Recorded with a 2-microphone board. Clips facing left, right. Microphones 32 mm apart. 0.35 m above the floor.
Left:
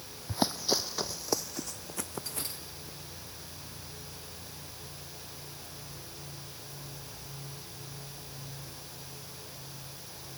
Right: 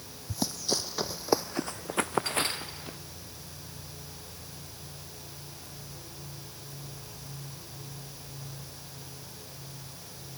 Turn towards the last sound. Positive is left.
turn(degrees=-65)  # may be behind; listen again after turning